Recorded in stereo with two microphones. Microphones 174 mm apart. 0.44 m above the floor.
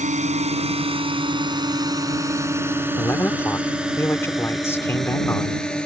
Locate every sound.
0.0 s a drone: 45° right (ahead or behind); by 5.9 s 5° left (ahead or behind)
3.0 s a man speaking: 15° left (ahead or behind)